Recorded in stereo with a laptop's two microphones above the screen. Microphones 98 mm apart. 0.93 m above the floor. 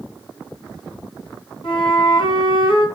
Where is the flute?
65° left (ahead or behind), 3 m.